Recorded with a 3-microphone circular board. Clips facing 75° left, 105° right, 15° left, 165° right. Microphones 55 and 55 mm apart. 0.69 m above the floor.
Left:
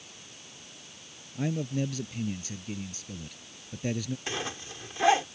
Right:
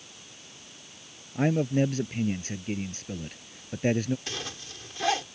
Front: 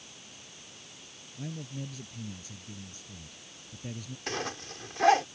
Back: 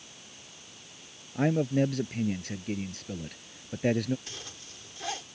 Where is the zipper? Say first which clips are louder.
Left 3 dB, front 11 dB; 10° left.